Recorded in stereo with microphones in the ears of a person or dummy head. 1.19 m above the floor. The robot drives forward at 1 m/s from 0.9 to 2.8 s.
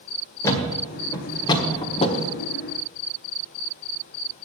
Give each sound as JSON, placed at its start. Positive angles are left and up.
{"t": 0.4, "sound": "a thud", "side_deg": 15, "distance_m": 2.0}